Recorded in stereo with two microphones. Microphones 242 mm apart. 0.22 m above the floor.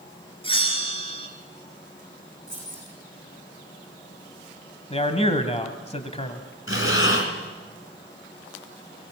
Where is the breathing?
55° left (ahead or behind), 3 m.